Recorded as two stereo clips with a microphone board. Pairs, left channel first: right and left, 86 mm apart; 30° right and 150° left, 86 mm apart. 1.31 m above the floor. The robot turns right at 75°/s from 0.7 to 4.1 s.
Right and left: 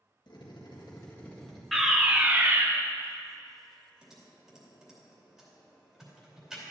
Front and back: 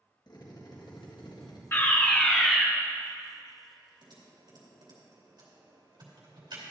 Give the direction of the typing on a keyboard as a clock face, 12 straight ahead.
6 o'clock.